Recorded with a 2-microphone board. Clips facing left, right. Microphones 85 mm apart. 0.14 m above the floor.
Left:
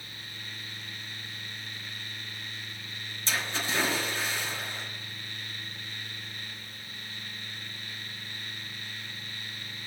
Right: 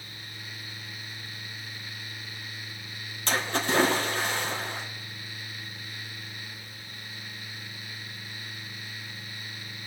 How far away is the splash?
About 2.5 m.